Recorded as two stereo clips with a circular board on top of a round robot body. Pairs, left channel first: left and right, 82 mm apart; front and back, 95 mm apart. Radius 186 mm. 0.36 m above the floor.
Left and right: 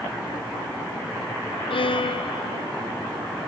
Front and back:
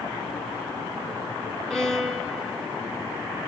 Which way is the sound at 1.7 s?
85° left.